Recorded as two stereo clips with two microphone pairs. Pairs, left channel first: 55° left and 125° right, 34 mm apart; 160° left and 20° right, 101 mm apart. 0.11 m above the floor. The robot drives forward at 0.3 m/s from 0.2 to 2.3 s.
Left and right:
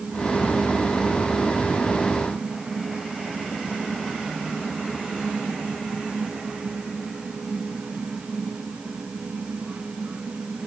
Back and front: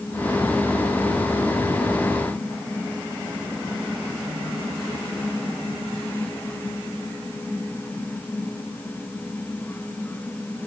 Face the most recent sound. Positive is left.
No sound to turn to.